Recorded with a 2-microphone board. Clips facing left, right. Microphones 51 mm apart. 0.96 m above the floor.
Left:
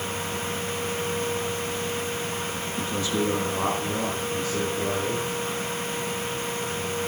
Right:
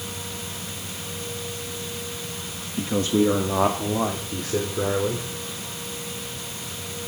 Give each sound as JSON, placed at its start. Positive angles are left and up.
{"t": 2.8, "sound": "a man speaking", "side_deg": -30, "distance_m": 1.3}